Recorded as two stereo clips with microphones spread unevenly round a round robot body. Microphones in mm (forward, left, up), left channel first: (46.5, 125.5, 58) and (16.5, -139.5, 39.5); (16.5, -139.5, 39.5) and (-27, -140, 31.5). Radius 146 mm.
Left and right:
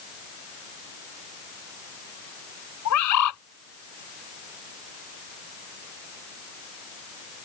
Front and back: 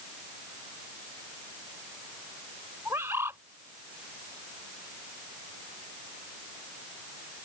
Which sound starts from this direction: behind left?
A bird, at 2.9 s.